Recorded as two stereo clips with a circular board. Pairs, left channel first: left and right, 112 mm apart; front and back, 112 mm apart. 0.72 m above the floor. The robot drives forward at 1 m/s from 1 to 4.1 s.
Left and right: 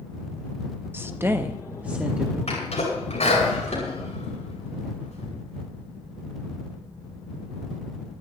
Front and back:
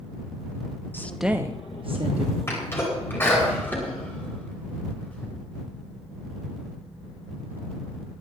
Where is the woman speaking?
45° right, 0.6 m; by 2.4 s 170° right, 1.3 m.